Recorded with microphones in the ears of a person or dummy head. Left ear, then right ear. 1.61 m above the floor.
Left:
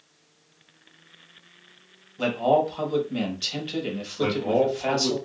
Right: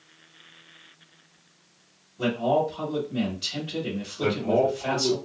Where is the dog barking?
No dog barking in this recording.